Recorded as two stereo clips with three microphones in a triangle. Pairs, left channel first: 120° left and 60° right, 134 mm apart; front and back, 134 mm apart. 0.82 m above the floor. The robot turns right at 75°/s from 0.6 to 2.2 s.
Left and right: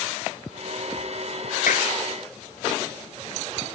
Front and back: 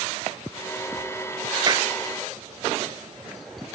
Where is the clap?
120° left; by 1.9 s 135° left.